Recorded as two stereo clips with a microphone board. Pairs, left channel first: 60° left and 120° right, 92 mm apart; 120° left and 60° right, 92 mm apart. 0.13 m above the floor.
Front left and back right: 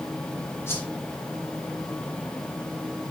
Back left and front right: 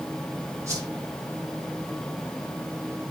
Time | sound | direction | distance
0.7 | a whoosh | straight ahead | 7 m